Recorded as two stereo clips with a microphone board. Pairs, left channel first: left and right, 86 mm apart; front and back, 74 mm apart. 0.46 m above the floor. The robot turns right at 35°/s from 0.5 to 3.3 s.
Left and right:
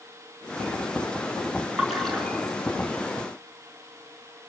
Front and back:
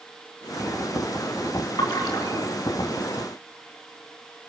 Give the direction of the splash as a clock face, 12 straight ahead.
12 o'clock.